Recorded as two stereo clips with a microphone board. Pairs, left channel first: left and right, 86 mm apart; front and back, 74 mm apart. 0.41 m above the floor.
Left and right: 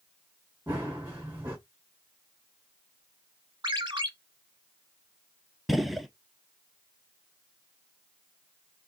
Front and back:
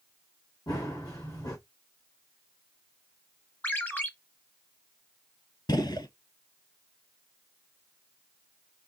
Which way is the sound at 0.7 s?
20° right.